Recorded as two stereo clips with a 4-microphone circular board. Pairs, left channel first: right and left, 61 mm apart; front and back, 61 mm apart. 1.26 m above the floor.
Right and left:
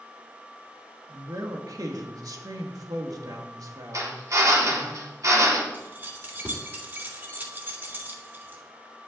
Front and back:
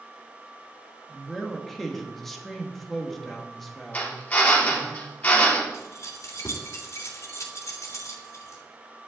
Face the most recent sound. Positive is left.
turn(degrees=35)